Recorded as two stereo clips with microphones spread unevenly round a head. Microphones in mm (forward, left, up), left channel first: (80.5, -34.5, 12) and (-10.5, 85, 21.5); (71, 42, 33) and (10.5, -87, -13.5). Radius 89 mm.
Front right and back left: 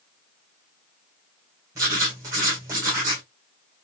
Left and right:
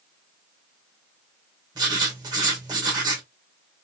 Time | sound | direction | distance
1.8 | writing | 170° left | 1.2 m